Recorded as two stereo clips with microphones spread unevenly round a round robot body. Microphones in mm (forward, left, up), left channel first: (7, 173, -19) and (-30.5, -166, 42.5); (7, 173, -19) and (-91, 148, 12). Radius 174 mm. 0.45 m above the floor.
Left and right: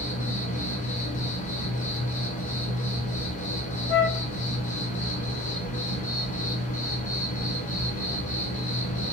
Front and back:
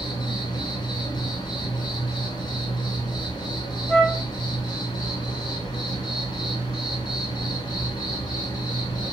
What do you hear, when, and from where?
0.0 s an insect: 25° left, 0.7 m
3.9 s a flute: 100° left, 0.7 m